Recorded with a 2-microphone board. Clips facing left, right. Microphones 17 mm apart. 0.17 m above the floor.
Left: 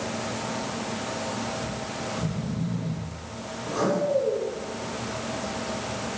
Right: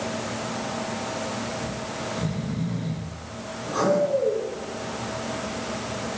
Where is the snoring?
45° right (ahead or behind), 1.2 m.